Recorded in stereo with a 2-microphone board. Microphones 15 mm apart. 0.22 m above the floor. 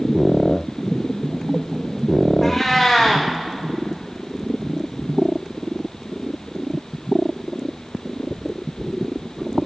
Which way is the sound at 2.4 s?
10° left (ahead or behind).